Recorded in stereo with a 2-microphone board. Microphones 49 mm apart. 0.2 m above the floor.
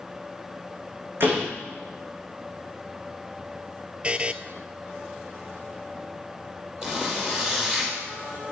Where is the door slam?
50° right (ahead or behind), 8 m.